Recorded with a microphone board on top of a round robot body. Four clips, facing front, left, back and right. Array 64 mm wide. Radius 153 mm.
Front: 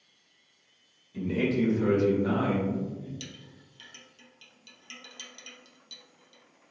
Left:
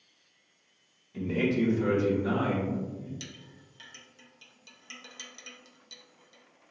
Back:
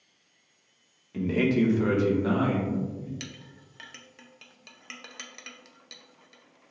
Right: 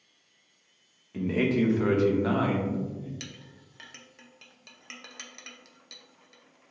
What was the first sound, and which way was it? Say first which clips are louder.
A man speaking: right 2 dB, back 3 dB; 135° right.